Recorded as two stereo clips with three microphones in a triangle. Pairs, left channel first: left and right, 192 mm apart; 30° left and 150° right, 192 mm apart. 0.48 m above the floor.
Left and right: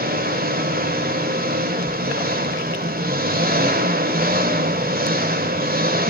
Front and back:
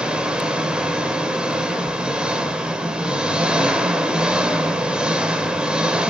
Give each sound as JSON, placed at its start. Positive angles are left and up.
{"t": 0.0, "sound": "an engine running", "azimuth_deg": -65, "distance_m": 1.9}